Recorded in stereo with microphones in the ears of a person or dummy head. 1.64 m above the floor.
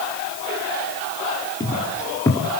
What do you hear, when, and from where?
1.6 s footsteps: 15° left (ahead or behind), 2.5 m